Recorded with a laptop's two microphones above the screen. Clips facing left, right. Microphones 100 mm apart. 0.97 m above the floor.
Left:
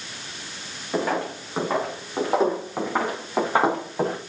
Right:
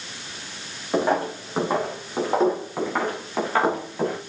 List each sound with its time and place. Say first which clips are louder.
0.9 s footsteps: right 3 dB; 15° right (ahead or behind), 4.5 m; by 4.2 s 25° left (ahead or behind), 4.5 m